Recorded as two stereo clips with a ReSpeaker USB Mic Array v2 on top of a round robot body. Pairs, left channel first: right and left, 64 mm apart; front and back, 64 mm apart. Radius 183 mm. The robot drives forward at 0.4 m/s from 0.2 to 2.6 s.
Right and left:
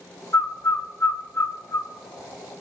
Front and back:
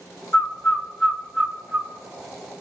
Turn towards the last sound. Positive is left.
turn(degrees=-140)